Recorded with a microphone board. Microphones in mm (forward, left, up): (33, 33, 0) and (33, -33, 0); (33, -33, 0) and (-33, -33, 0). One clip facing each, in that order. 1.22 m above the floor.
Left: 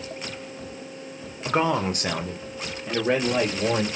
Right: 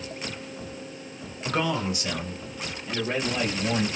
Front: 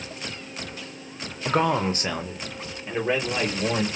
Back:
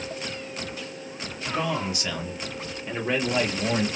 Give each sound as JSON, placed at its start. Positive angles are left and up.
{"t": 1.4, "sound": "a man speaking", "azimuth_deg": 20, "distance_m": 0.7}